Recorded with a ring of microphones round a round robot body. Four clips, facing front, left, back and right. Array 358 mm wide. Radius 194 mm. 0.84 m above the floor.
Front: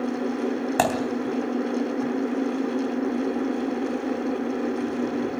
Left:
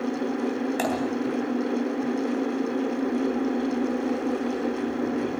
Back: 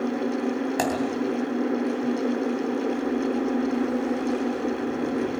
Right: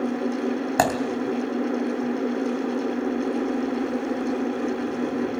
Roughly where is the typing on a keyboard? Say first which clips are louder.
Right 7 dB, front 4 dB; ahead right.